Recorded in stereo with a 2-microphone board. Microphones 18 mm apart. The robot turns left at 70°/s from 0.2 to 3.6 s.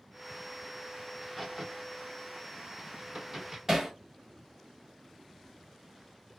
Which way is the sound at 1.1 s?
10° left (ahead or behind).